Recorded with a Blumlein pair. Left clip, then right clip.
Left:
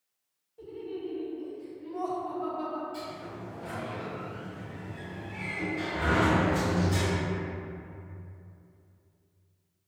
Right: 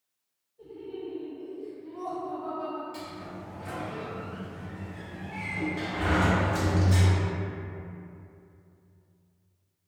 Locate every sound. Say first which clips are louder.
0.6 s laughter: left 1 dB; 50° left, 1.0 m
2.9 s a sliding door: left 1 dB; 60° right, 1.1 m